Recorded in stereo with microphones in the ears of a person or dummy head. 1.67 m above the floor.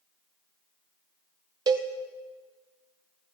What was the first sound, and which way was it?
A cowbell, 25° right (ahead or behind).